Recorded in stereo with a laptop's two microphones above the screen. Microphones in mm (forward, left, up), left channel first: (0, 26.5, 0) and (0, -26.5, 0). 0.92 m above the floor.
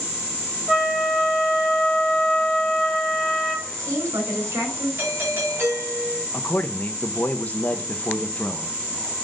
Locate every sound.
0.7 s a flute: 10° right (ahead or behind), 1.6 m
3.7 s a woman speaking: 75° right (ahead or behind), 4 m
5.0 s a doorbell: 45° right (ahead or behind), 3 m
6.3 s a man speaking: 30° left (ahead or behind), 0.7 m